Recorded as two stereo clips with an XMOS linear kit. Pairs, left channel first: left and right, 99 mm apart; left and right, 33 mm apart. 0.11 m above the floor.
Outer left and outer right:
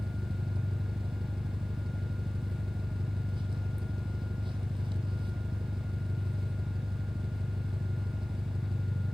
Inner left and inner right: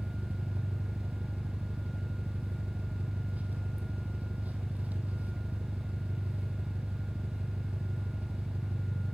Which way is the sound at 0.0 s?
55° right (ahead or behind).